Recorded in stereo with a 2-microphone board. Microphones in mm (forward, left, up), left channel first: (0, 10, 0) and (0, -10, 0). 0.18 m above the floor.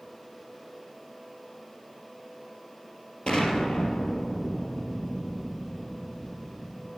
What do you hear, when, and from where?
3.3 s an explosion: 55° left (ahead or behind), 3.5 m